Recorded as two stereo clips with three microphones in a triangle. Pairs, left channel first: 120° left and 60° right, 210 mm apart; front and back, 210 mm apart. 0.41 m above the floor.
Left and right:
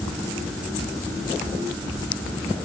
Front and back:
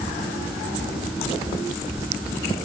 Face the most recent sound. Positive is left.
No sound to turn to.